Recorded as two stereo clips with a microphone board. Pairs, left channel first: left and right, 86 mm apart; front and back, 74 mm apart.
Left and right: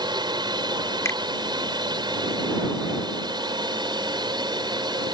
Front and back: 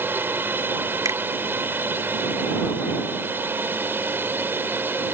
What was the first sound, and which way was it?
A drone, 120° right.